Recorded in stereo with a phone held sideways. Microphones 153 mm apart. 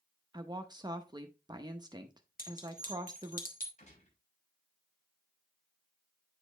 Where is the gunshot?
50° left (ahead or behind), 6 m.